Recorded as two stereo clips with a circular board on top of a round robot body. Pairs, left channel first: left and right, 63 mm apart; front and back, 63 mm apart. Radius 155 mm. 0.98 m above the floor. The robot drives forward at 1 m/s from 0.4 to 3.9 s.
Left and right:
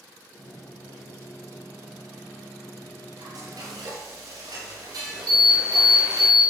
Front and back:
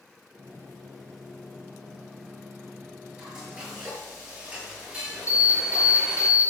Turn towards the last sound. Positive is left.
turn(degrees=-115)